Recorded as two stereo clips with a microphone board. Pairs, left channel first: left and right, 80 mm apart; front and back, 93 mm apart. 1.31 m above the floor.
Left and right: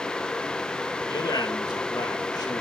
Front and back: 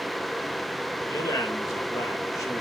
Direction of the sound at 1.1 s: 55° left.